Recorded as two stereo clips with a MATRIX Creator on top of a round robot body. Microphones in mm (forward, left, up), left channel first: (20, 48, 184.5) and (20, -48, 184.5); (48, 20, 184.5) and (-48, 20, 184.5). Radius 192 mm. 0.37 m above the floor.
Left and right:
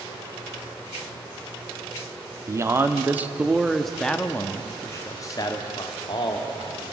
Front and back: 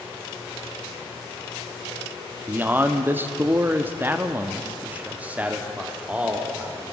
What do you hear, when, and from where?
2.5 s a man speaking: 120° right, 1.6 m; by 6.9 s 100° left, 2.5 m